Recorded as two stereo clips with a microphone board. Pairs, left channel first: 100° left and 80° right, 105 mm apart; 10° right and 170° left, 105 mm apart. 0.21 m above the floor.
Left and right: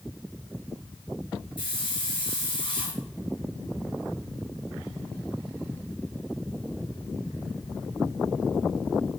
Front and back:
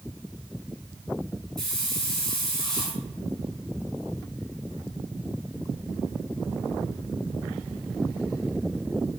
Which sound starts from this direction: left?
A hiss, at 1.6 s.